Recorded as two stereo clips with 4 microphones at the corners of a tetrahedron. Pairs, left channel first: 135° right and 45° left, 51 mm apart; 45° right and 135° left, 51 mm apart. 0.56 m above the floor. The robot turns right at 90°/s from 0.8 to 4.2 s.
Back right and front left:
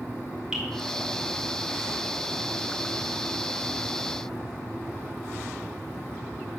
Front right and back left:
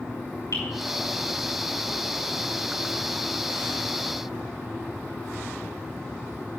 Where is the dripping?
30° right, 4.5 m.